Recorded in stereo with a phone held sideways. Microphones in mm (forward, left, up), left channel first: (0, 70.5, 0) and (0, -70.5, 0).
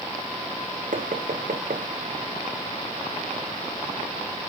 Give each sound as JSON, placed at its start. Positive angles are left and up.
{"t": 0.9, "sound": "knocking", "side_deg": -75, "distance_m": 0.9}